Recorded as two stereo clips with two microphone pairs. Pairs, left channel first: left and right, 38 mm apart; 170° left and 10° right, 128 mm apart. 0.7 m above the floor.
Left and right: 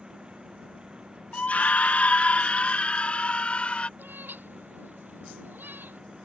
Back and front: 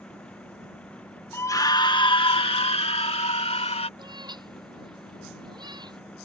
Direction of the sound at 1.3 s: 110° left.